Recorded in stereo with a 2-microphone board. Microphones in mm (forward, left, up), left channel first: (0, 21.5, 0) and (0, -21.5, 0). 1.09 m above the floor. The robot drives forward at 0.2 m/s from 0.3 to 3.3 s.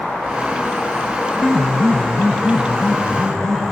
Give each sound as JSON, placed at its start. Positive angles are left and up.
{"t": 1.4, "sound": "a piano", "side_deg": 25, "distance_m": 0.7}